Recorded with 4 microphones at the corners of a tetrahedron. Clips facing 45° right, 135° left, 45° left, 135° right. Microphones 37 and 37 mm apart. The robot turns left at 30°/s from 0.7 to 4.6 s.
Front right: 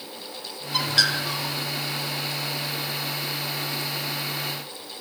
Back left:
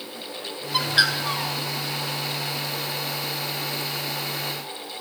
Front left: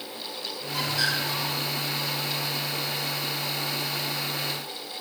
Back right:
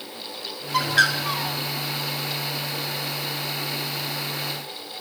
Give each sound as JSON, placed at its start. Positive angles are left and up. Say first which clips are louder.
{"t": 0.7, "sound": "a bird", "louder": "back left 2 dB, back right 7 dB", "azimuth_deg": -145, "distance_m": 3.0}